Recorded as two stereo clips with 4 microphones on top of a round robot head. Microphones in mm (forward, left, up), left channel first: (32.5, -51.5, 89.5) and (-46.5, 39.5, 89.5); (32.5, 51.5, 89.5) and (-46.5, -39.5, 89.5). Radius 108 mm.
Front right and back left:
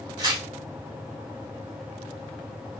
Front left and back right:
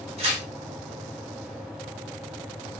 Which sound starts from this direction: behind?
Tearing paper, at 0.2 s.